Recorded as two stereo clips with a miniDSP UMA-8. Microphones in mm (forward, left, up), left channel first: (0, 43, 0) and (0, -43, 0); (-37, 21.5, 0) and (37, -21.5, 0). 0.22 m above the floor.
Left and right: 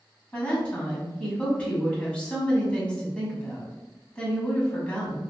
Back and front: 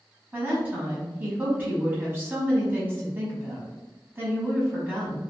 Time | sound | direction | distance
0.3 | a woman speaking | 20° left | 1.2 m